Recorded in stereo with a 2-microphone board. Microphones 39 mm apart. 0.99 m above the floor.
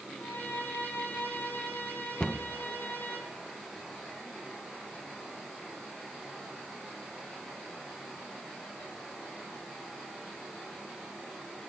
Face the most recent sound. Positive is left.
turn(degrees=15)  # may be behind; listen again after turning